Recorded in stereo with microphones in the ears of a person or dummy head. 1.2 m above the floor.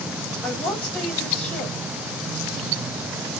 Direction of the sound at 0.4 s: 5° left (ahead or behind).